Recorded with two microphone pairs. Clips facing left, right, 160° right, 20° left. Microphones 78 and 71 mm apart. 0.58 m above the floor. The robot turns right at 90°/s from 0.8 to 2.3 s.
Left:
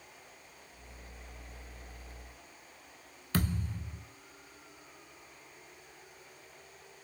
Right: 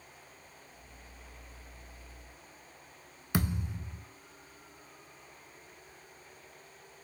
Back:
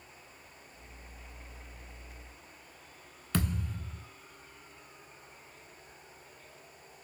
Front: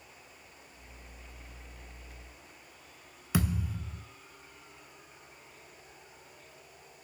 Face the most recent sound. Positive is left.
turn(degrees=-45)